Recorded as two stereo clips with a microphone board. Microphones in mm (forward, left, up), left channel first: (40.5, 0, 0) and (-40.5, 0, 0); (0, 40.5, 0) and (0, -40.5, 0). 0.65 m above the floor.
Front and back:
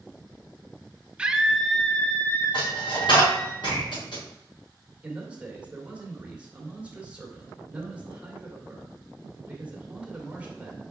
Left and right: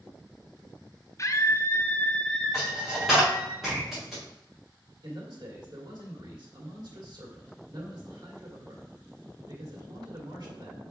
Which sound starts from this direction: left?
A scream, at 1.2 s.